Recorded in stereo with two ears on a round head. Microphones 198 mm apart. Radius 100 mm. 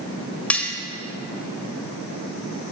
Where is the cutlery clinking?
5° left (ahead or behind), 1.4 m.